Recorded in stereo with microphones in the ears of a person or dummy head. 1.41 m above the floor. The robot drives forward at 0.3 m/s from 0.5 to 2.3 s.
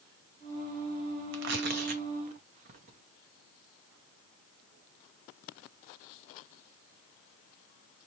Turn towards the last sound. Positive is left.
turn(degrees=-40)  # may be behind; listen again after turning